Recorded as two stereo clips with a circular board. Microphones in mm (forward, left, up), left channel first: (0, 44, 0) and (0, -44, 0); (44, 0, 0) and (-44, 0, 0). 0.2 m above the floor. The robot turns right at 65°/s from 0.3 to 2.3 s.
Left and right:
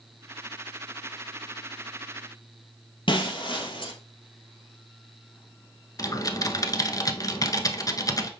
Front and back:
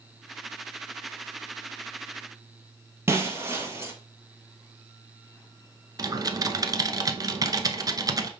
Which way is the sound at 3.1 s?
120° left.